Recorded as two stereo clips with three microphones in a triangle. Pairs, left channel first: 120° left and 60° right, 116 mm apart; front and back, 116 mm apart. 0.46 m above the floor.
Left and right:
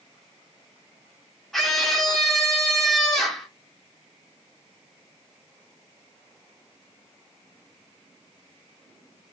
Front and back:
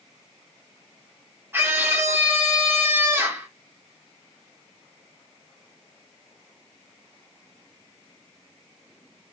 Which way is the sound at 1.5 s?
155° right.